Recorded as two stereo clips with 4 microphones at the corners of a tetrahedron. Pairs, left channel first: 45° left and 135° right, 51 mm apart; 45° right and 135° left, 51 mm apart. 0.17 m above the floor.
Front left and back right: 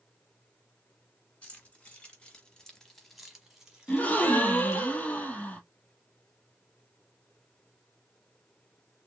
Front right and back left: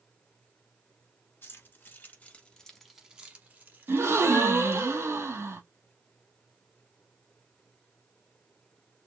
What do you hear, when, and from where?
1.4 s keys jangling: 15° right, 1.7 m; by 4.9 s 155° left, 2 m
3.9 s a gasp: 105° left, 0.8 m